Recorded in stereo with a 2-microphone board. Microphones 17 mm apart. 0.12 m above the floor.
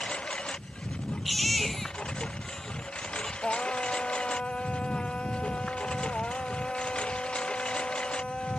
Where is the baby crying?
10° left (ahead or behind).